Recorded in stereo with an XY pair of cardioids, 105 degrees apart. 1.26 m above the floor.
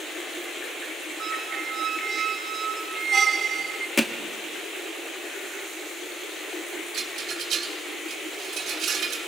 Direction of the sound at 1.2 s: 45° right.